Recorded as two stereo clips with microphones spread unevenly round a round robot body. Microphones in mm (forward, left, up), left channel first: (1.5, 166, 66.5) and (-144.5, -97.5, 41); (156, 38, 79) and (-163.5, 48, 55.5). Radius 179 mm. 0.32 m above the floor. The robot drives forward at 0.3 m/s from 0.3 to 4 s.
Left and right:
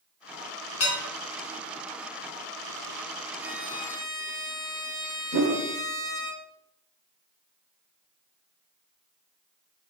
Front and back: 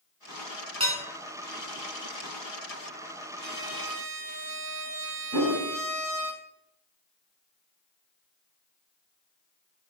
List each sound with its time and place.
0.8 s dishes clattering: 105° left, 3 m; by 1.0 s 110° left, 3 m
3.4 s a violin: 155° left, 1.8 m
5.3 s a whoosh: 155° right, 1.7 m